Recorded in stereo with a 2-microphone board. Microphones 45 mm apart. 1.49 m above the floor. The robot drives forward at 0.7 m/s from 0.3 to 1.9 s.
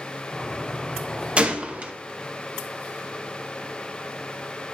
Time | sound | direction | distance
1.4 | a gunshot | 25° right (ahead or behind) | 0.6 m